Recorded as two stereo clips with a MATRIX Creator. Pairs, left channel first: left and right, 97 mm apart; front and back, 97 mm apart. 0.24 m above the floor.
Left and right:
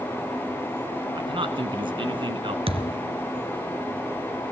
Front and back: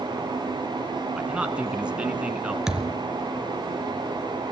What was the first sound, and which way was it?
A man speaking, 100° right.